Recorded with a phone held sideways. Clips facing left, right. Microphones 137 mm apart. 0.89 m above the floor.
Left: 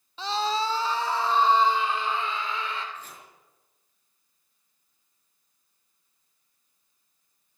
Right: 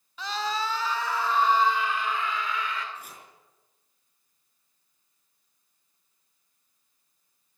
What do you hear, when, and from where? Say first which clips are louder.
0.2 s a scream: left 3 dB; 25° left (ahead or behind), 1.0 m; by 2.9 s 30° left (ahead or behind), 3 m
3.0 s chopping: left 1 dB; 10° right (ahead or behind), 5 m